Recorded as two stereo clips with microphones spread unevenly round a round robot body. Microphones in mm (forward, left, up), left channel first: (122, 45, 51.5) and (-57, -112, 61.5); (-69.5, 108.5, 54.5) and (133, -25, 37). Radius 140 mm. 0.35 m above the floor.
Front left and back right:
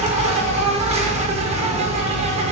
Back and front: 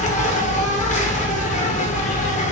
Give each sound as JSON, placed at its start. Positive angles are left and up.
{"t": 0.0, "sound": "an insect", "azimuth_deg": 180, "distance_m": 0.7}